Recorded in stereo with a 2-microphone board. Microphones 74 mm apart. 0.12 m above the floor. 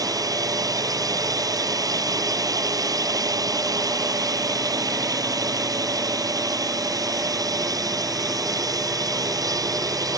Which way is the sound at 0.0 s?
55° right (ahead or behind).